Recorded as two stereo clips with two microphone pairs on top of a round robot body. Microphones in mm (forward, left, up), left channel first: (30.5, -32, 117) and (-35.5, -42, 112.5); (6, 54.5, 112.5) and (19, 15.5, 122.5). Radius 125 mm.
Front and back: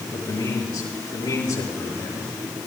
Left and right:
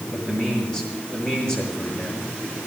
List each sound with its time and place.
0.1 s a man speaking: 35° left, 6.5 m